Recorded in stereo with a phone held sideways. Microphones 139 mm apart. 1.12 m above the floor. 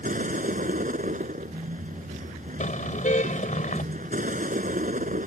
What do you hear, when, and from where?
0.0 s a vehicle: 70° right (ahead or behind)
2.6 s a car horn: 65° left (ahead or behind)